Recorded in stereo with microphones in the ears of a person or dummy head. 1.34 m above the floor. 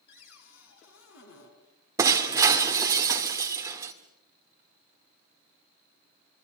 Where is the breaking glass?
15° right (ahead or behind), 1.7 m.